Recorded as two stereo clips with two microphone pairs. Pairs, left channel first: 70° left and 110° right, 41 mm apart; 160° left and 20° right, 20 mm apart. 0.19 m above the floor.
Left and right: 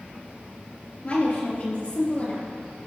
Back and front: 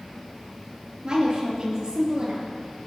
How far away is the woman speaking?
About 3.5 m.